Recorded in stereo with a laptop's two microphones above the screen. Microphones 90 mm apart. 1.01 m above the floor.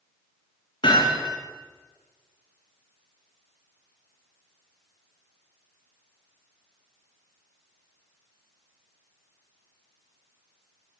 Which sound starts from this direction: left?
Hammering, at 0.8 s.